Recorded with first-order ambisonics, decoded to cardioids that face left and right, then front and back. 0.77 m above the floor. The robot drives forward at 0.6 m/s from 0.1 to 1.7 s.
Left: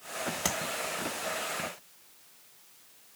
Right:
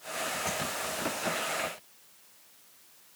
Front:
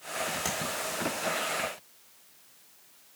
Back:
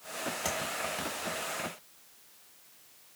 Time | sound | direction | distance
0.5 | tapping | 80° left | 1.7 m